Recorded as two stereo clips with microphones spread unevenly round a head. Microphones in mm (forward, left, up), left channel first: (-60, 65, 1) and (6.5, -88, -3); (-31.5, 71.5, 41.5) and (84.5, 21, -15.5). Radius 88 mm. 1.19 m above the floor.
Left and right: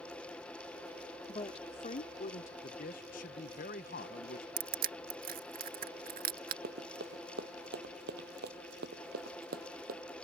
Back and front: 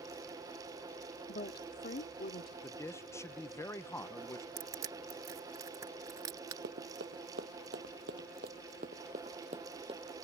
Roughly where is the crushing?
Right.